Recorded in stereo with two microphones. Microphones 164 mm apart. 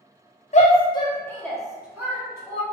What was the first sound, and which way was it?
A shout, 45° left (ahead or behind).